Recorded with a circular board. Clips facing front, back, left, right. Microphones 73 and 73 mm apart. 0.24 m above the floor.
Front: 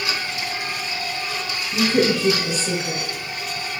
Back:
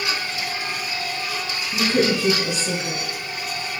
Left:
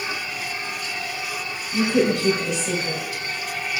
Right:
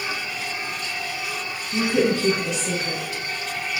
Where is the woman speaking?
135° right, 1.0 m.